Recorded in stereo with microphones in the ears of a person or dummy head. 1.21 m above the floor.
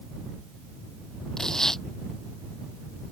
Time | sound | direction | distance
1.4 | tearing paper | 5° left (ahead or behind) | ?